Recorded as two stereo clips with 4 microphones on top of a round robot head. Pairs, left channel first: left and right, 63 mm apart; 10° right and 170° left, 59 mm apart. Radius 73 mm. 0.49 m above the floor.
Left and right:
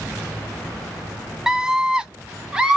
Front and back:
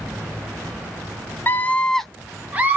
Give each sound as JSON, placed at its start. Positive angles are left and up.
{"t": 1.5, "sound": "a scream", "azimuth_deg": -15, "distance_m": 0.7}